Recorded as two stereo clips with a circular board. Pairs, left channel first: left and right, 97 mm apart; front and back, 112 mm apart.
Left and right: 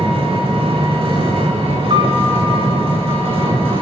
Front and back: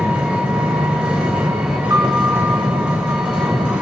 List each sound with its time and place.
0.0 s an engine running: 100° right, 6.5 m
1.9 s a piano: 120° right, 3.5 m